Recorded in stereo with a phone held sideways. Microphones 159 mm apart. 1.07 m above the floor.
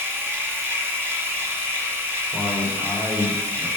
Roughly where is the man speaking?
Centre.